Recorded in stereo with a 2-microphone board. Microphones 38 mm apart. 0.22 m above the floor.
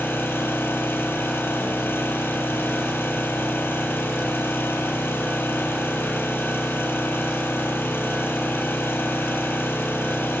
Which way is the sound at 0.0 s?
80° left.